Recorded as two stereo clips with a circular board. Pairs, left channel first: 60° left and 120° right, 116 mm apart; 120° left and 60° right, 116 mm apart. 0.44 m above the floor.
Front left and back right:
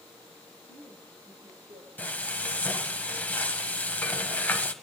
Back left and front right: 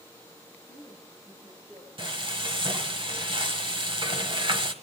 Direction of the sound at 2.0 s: 15° right.